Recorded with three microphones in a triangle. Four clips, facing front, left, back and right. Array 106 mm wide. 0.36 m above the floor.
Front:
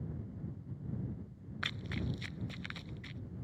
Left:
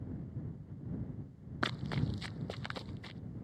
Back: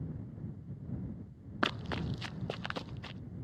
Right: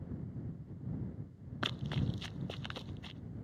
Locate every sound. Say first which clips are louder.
1.6 s running footsteps: left 2 dB, back 6 dB; 170° left